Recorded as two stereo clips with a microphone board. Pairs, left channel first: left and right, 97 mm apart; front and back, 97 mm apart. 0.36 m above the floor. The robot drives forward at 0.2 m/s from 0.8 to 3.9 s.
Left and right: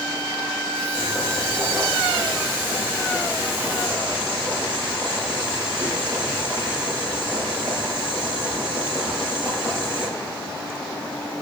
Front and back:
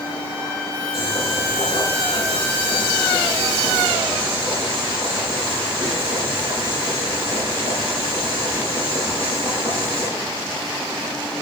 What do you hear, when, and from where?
0.9 s boiling: 175° left, 8.5 m